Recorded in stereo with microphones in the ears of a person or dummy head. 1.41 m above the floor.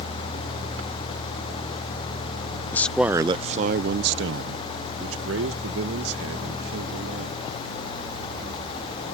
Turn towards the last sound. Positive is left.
turn(degrees=-80)